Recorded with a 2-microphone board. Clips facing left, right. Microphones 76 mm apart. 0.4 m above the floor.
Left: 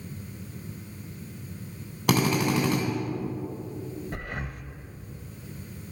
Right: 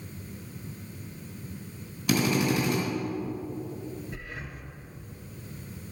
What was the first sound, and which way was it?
A drill, 70° left (ahead or behind).